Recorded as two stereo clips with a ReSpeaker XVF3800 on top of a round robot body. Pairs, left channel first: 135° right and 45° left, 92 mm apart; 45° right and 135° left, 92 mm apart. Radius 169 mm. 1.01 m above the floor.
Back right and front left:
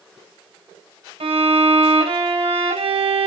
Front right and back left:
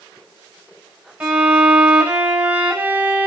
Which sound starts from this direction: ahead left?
A violin, at 1.2 s.